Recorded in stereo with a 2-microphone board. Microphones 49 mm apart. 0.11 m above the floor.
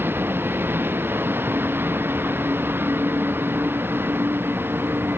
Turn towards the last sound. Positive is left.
turn(degrees=-55)  # may be behind; listen again after turning